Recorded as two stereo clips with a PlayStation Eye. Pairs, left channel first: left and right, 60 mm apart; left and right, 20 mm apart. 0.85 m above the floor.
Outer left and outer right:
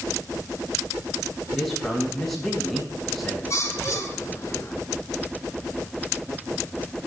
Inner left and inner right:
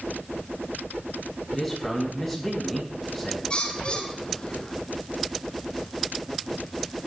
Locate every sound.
1.5 s a man speaking: 5° left (ahead or behind), 8 m
3.5 s a bird: 50° left (ahead or behind), 3 m